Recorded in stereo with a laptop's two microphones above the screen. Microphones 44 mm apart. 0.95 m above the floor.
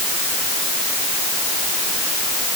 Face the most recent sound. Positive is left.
No sound to turn to.